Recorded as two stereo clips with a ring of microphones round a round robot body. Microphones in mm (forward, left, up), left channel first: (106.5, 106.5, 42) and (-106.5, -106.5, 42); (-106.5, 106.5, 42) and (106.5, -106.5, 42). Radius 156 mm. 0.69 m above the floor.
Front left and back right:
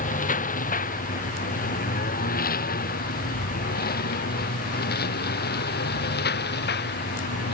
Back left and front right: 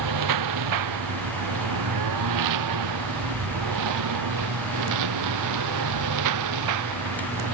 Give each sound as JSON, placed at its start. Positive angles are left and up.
{"t": 0.0, "sound": "a lawn mower", "azimuth_deg": -20}